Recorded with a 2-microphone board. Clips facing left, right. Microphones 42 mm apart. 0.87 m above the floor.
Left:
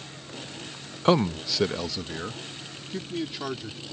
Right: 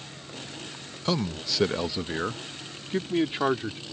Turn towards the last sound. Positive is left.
turn(degrees=-40)  # may be behind; listen again after turning